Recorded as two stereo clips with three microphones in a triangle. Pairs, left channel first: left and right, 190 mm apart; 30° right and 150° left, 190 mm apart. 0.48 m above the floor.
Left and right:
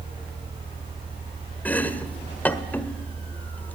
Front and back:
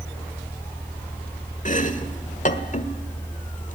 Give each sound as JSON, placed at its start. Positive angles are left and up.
{"t": 1.6, "sound": "chopping", "azimuth_deg": 10, "distance_m": 1.5}